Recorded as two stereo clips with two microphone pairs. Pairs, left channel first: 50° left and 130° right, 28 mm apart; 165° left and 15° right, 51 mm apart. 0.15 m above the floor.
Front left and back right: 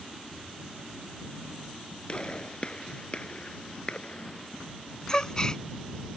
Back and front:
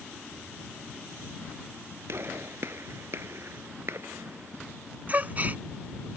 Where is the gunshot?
Straight ahead.